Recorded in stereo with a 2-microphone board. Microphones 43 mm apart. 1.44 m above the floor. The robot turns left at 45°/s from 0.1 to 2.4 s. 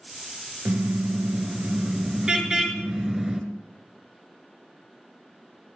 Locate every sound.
0.7 s a car horn: 90° right, 2.5 m; by 3.4 s 170° right, 2.5 m